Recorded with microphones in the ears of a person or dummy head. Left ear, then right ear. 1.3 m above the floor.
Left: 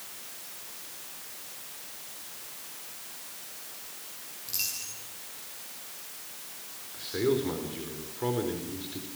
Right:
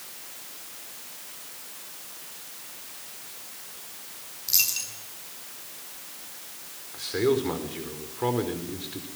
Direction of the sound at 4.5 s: 30° right (ahead or behind).